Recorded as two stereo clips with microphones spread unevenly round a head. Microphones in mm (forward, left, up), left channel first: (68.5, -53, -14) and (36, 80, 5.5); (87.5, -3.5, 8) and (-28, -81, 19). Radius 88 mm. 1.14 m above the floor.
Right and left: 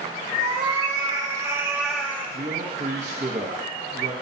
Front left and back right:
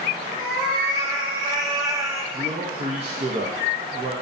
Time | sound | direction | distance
0.4 | a cat meowing | 150° left | 1.2 m
2.3 | a man speaking | 160° left | 0.8 m